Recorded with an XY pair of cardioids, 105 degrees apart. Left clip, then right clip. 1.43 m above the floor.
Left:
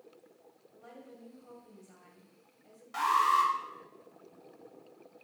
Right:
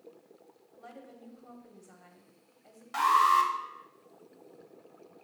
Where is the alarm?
40° right, 0.9 m.